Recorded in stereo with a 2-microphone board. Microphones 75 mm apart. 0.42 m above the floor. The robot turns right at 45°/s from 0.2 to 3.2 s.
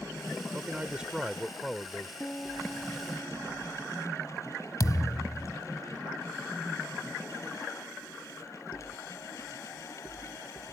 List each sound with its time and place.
0.5 s a man speaking: 40° right; by 2.1 s 30° left
2.2 s a piano: 155° left; by 4.3 s 160° right
4.8 s a thud: 55° left (ahead or behind)